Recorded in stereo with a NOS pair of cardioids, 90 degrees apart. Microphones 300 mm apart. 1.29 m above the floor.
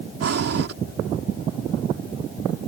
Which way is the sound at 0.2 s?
50° right.